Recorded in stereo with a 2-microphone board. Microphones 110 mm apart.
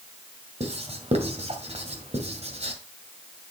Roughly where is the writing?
Right.